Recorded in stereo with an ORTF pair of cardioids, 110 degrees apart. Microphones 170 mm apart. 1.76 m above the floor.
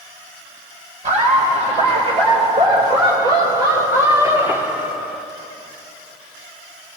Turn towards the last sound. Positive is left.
turn(degrees=5)